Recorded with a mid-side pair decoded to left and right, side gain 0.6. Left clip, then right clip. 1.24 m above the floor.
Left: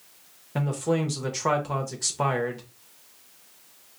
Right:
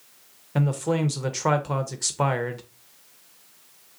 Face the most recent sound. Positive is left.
turn(degrees=-15)